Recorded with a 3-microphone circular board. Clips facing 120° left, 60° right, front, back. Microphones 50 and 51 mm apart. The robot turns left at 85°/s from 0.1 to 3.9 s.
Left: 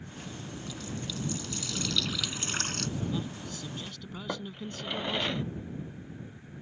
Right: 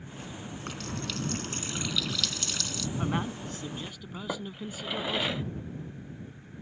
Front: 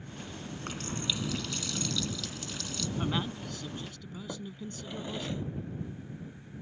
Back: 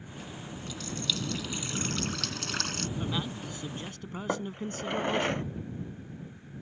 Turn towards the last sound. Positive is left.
turn(degrees=-145)